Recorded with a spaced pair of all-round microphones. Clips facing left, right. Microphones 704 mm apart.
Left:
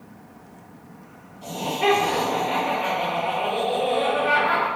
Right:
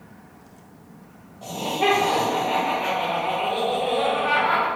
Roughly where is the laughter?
Right.